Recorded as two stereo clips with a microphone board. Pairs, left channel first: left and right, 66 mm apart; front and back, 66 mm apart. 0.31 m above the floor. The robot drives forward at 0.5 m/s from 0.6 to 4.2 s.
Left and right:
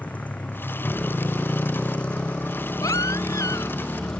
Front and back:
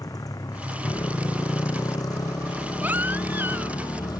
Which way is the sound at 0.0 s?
20° left.